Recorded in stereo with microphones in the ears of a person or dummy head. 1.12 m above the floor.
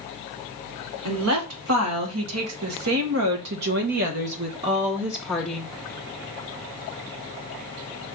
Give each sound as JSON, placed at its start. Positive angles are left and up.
{"t": 1.1, "sound": "a woman speaking", "side_deg": -80, "distance_m": 2.0}